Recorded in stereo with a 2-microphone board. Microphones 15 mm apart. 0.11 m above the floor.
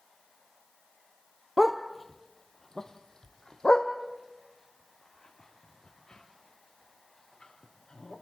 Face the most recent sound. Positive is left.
turn(degrees=75)  # may be behind; listen again after turning